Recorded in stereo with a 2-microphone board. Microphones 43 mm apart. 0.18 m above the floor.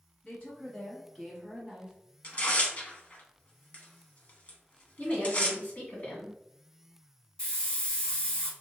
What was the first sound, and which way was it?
A woman speaking, 40° left (ahead or behind).